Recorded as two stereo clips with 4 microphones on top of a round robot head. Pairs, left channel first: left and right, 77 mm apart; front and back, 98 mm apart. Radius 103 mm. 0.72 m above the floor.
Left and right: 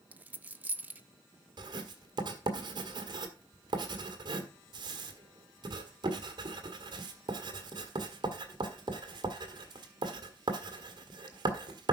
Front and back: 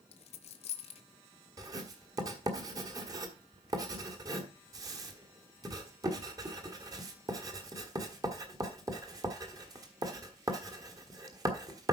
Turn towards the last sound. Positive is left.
turn(degrees=-125)